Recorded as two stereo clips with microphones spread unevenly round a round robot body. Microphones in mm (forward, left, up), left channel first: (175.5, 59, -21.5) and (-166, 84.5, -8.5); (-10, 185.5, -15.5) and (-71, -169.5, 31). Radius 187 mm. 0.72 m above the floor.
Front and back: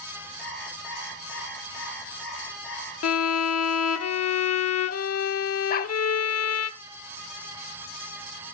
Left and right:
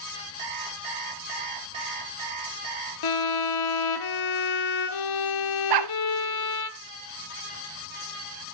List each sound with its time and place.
0.4 s an alarm clock: 95° right, 5.5 m
3.0 s a violin: 45° left, 1.0 m
5.7 s a dog barking: 70° right, 0.8 m